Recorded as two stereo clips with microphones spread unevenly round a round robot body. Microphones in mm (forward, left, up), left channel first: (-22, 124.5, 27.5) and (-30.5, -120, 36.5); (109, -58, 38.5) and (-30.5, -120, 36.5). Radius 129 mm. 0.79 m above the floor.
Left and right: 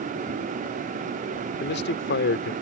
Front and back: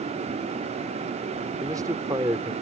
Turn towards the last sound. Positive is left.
turn(degrees=130)